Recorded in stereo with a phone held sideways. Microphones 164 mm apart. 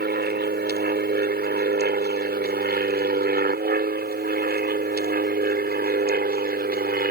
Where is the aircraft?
75° right (ahead or behind); by 7.1 s 70° right (ahead or behind).